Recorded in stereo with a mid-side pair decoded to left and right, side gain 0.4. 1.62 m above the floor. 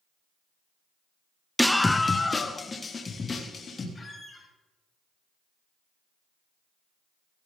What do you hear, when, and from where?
1.6 s a scream: straight ahead, 0.7 m; by 3.9 s 40° left, 4 m
4.0 s a squeak: 30° left, 5.5 m